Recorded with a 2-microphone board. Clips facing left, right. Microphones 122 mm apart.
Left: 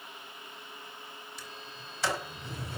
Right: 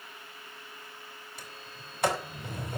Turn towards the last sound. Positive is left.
turn(degrees=-50)  # may be behind; listen again after turning